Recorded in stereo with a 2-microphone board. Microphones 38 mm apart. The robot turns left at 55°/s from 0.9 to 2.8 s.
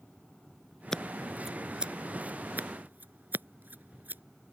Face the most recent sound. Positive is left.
turn(degrees=-50)  # may be behind; listen again after turning